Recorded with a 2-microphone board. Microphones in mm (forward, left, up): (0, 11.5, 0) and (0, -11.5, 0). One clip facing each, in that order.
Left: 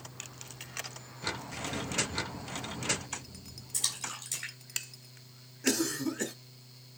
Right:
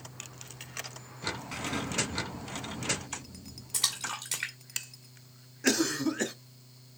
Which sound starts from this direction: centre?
A cough, at 5.6 s.